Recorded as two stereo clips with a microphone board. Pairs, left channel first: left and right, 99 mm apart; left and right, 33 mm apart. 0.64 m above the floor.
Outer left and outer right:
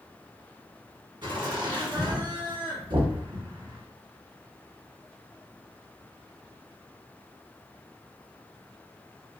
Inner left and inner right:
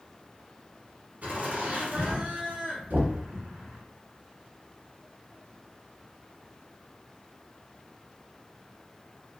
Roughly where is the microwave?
I don't hear a microwave.